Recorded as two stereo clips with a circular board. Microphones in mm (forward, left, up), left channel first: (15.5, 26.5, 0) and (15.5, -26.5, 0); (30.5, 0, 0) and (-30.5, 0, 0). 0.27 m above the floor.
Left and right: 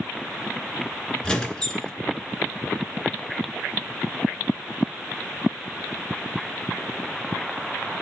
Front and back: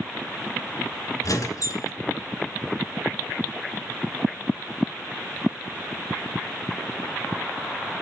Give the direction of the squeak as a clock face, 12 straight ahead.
12 o'clock.